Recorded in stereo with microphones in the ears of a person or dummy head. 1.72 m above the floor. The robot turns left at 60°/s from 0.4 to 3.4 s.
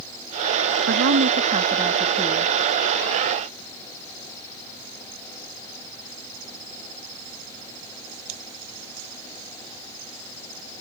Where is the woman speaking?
100° right; by 2.5 s 160° left.